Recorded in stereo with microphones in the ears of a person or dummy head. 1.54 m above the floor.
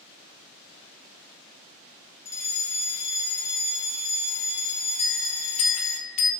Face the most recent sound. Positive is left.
turn(degrees=40)  # may be behind; listen again after turning